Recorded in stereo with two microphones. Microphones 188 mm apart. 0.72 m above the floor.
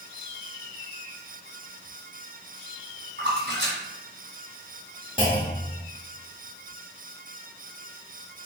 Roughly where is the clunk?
Left.